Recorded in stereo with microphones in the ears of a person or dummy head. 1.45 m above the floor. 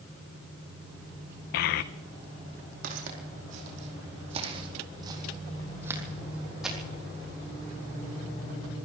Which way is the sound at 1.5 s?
55° left (ahead or behind).